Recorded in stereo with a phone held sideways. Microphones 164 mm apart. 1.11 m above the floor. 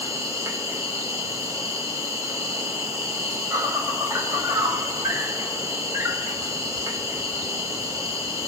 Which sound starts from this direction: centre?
An insect, at 0.0 s.